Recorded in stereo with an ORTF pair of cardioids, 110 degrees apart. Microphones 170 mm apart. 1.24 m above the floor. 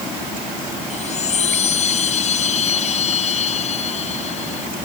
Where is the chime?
40° left.